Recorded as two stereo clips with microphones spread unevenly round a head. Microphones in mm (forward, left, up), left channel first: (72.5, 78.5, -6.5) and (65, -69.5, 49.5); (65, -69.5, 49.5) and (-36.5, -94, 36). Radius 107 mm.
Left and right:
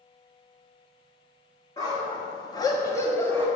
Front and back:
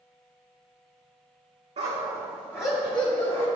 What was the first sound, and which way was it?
A dog barking, 175° left.